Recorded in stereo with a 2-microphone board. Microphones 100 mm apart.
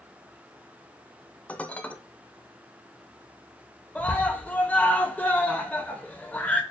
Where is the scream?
15° left (ahead or behind), 1.0 m.